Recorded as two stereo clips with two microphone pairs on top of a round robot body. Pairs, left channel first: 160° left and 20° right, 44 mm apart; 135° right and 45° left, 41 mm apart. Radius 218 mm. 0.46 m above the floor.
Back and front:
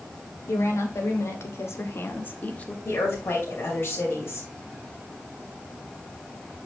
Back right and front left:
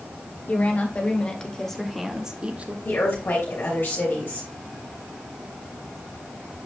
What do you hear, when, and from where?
0.5 s a woman speaking: 170° left, 3 m; by 2.8 s 95° left, 1.7 m
2.9 s a woman speaking: 170° right, 3 m